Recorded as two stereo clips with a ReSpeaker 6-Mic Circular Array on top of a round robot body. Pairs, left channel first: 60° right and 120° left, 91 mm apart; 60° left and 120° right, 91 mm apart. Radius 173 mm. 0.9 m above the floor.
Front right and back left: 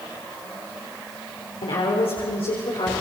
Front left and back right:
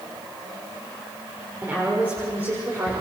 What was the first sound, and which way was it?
A woman speaking, 50° right.